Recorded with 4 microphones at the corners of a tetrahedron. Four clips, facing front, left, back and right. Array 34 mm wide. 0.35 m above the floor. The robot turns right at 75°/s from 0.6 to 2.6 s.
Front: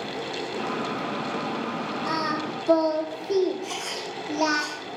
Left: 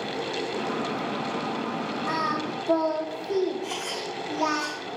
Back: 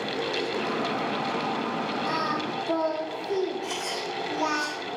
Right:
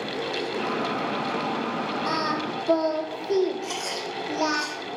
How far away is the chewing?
About 5 m.